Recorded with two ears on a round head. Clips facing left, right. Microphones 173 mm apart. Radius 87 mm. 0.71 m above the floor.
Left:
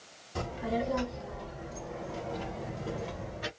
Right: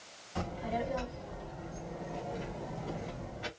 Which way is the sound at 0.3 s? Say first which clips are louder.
Left 3 dB; 60° left (ahead or behind).